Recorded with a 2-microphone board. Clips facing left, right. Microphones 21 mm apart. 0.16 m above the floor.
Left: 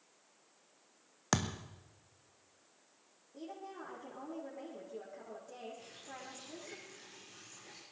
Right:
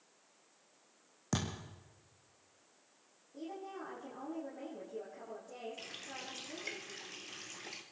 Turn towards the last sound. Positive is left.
turn(degrees=-60)  # may be behind; listen again after turning